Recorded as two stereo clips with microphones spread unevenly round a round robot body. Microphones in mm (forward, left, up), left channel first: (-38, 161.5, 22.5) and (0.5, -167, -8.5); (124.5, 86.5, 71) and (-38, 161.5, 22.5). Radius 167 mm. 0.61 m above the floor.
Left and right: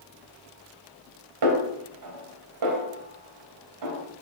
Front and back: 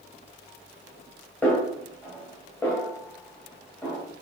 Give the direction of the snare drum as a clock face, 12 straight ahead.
4 o'clock.